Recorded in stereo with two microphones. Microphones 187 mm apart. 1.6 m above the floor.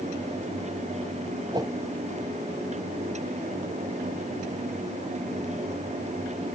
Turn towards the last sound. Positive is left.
turn(degrees=-20)  # may be behind; listen again after turning